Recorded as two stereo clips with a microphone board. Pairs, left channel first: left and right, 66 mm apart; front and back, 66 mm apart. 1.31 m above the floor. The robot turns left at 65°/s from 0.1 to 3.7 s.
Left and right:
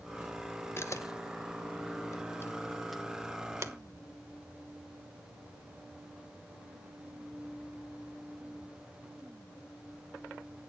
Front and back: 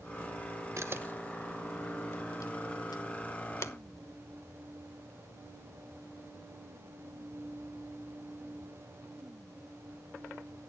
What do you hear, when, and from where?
0.8 s a camera shutter: 140° left, 1.1 m; by 3.7 s 50° right, 1.1 m